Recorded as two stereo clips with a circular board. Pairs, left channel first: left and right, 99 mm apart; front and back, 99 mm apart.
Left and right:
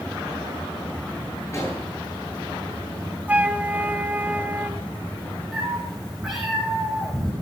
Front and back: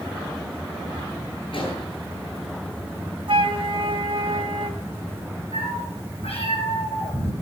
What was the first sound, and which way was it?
An explosion, 30° left.